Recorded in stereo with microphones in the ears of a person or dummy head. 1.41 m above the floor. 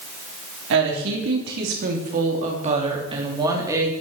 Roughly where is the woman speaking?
Right.